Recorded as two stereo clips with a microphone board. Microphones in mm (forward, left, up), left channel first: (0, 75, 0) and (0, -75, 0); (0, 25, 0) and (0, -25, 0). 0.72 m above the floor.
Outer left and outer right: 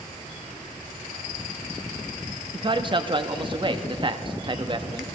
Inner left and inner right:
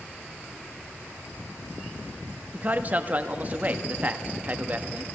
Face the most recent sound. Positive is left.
turn(degrees=-35)  # may be behind; listen again after turning